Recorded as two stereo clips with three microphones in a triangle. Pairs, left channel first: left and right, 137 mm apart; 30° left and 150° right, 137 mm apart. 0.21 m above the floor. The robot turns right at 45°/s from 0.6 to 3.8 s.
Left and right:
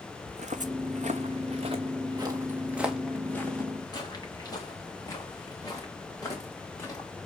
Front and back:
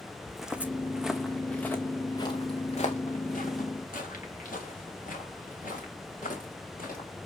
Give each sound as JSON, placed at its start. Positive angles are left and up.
{"t": 0.3, "sound": "footsteps", "azimuth_deg": -55, "distance_m": 0.7}